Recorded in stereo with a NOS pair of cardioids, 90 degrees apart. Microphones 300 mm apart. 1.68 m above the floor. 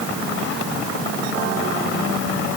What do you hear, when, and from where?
Only background noise.